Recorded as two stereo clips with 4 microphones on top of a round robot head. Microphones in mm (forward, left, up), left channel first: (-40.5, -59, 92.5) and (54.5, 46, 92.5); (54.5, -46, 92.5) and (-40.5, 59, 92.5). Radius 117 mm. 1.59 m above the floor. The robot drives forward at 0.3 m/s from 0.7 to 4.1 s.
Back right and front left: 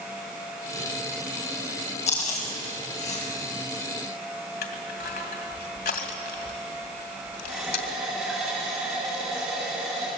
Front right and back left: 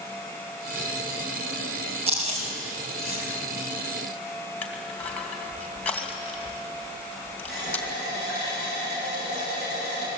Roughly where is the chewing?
Behind.